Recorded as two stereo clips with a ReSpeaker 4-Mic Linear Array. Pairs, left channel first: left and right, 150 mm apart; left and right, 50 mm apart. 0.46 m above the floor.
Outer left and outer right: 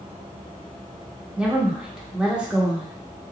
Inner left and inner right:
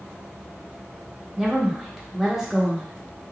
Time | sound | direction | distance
1.4 | a woman speaking | 5° right (ahead or behind) | 0.7 m